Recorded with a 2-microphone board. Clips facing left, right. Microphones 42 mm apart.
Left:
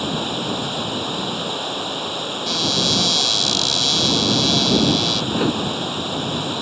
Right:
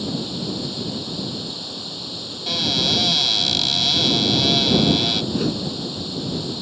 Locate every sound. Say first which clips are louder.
0.0 s running water: left 4 dB; 55° left (ahead or behind)
2.5 s a cupboard door: even; 15° right (ahead or behind)
5.3 s a whoosh: left 3 dB; 40° left (ahead or behind)